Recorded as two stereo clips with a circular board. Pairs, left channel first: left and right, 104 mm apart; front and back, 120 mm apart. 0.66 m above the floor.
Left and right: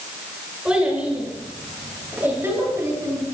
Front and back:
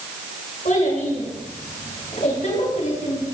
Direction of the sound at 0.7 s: 10° right.